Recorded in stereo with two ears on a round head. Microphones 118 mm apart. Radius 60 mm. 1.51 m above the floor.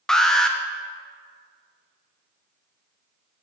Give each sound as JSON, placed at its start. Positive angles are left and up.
{"t": 0.1, "sound": "an alarm", "side_deg": 5, "distance_m": 0.9}